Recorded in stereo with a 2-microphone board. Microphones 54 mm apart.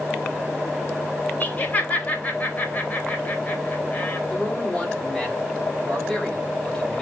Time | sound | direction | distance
1.4 | laughter | 30° left (ahead or behind) | 4 m
4.3 | a man speaking | 10° left (ahead or behind) | 5.5 m